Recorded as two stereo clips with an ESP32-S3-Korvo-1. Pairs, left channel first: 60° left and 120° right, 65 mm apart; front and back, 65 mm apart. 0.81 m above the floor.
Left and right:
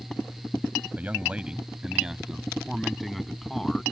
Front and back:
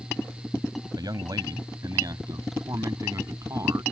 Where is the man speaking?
175° left; by 3.8 s 145° left.